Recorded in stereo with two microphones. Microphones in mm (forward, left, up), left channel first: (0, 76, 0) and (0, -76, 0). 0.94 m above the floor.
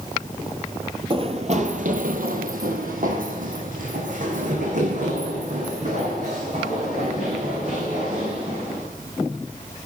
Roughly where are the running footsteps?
Right.